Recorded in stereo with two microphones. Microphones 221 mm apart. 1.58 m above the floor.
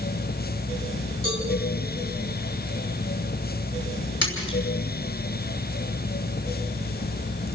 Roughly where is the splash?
Left.